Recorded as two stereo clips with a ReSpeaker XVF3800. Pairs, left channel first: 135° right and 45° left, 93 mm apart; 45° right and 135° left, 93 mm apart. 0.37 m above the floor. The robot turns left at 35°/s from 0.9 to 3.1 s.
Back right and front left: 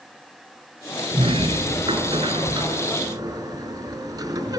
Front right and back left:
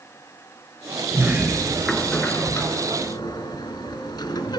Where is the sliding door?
75° left, 2.5 m; by 4.6 s 5° left, 2.5 m.